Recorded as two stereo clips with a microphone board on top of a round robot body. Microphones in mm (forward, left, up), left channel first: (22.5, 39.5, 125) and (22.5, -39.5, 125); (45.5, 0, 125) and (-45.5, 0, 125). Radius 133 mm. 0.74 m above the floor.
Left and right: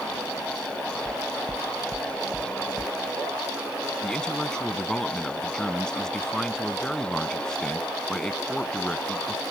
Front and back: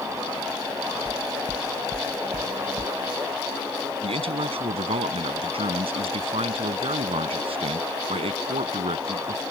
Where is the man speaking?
175° left.